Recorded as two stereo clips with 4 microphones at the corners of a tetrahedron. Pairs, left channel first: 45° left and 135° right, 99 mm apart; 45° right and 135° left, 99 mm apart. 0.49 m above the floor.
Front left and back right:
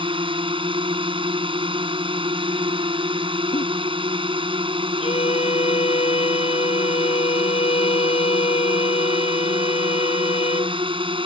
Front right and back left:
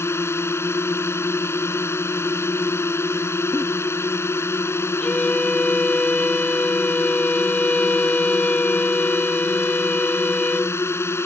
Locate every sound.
0.0 s a drone: 110° right
3.5 s a giggle: 35° left
5.0 s a violin: 35° left